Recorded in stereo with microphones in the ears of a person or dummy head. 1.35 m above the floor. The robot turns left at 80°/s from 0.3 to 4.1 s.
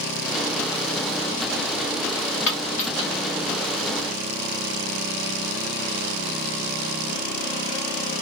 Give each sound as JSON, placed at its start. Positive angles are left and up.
{"t": 2.5, "sound": "a dropped coin", "side_deg": 60, "distance_m": 1.6}